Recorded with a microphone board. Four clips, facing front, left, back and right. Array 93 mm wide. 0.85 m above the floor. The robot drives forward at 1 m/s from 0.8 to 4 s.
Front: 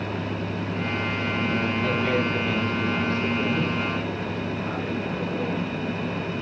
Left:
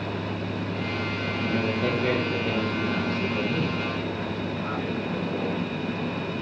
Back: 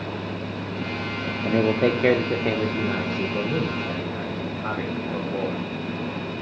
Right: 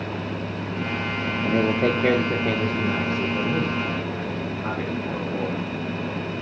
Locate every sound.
1.4 s a man speaking: 145° right, 1.1 m; by 5.6 s 170° right, 3.5 m